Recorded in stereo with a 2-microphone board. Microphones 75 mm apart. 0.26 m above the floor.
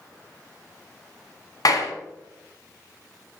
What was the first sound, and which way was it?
A clap, 60° left (ahead or behind).